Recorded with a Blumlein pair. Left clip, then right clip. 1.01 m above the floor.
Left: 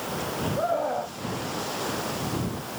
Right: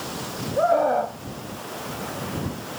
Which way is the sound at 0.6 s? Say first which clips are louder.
Right 8 dB; 70° right.